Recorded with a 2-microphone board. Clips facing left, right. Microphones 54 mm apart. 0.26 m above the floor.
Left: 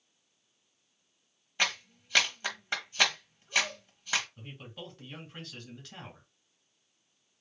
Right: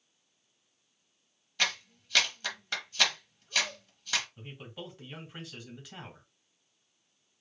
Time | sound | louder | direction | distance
1.6 | a clap | left 1 dB | 25° left (ahead or behind) | 1.4 m
4.4 | a man speaking | right 1 dB | 10° right (ahead or behind) | 2.5 m